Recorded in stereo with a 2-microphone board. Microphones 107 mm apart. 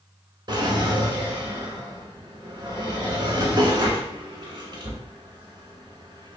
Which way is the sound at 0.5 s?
45° right (ahead or behind).